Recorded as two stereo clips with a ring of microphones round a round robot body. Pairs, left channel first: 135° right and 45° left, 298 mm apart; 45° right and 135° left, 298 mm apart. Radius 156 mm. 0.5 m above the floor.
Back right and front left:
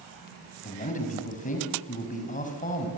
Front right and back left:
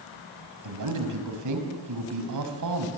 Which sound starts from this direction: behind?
A man speaking, at 0.6 s.